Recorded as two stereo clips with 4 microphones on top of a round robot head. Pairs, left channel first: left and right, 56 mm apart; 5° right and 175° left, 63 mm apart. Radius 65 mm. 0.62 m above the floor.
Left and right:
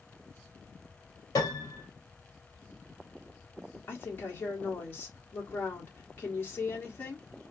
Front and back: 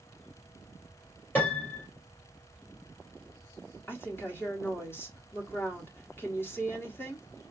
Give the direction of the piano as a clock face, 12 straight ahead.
10 o'clock.